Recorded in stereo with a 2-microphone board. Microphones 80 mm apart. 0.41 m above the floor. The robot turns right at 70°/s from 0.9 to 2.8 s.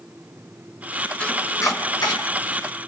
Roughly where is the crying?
I don't hear crying.